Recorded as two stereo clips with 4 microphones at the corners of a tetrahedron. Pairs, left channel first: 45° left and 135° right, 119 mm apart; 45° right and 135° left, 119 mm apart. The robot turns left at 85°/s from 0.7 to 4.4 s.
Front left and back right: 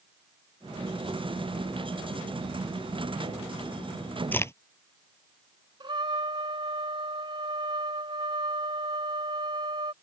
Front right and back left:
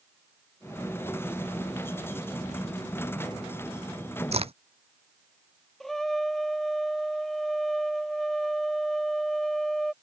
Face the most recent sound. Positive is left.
turn(degrees=-130)